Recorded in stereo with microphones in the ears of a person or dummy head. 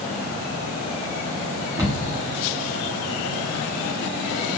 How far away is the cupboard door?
About 1.0 m.